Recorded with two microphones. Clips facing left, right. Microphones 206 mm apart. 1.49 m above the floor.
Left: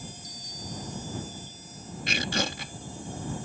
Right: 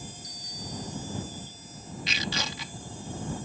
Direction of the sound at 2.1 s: 50° left (ahead or behind).